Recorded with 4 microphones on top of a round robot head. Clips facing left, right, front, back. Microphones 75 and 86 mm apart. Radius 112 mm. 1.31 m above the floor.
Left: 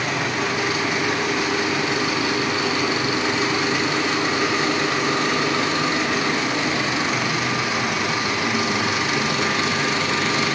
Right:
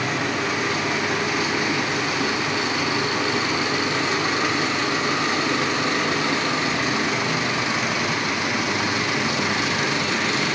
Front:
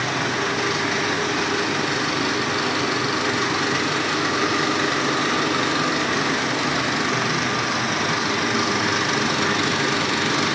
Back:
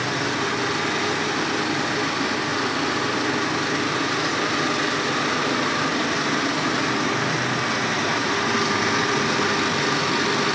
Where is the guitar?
I don't hear a guitar.